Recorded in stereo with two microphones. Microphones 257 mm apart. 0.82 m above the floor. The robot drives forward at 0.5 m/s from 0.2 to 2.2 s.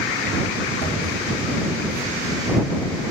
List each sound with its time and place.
0.8 s knocking: 45° left (ahead or behind), 3 m